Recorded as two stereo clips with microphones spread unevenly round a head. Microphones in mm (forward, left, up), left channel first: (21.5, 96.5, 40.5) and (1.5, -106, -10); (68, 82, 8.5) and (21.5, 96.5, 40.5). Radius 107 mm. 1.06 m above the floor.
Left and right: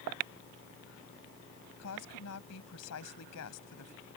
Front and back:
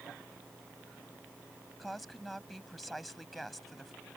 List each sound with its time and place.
1.8 s a woman speaking: 75° left